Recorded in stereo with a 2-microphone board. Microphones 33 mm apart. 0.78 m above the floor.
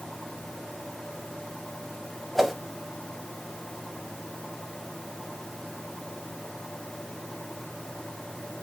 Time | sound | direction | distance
2.4 | a whoosh | 5° right (ahead or behind) | 0.8 m